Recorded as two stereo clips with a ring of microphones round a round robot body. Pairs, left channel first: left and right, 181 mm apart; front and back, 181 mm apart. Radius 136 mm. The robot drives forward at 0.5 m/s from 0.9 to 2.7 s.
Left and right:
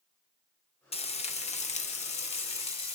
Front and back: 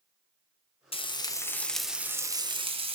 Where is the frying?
45° left, 1.0 m; by 3.0 s 135° left, 1.0 m.